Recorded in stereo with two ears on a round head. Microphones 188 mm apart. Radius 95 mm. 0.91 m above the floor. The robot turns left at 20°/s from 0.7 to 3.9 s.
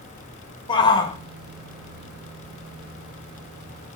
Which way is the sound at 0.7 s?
20° left (ahead or behind).